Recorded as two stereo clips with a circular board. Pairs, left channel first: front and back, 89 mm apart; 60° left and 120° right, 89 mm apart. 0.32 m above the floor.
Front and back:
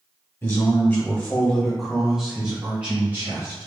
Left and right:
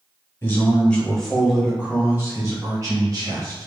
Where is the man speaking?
20° left, 1.5 m; by 3.7 s 125° right, 2 m.